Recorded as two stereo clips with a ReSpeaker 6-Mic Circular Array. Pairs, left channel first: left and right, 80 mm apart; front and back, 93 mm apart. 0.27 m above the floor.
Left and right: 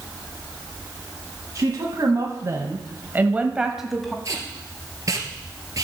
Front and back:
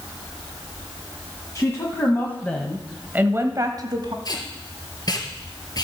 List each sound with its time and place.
1.6 s a woman speaking: 50° right, 2 m; by 4.2 s 175° left, 1.5 m
4.2 s tape being pulled: 45° right, 2.0 m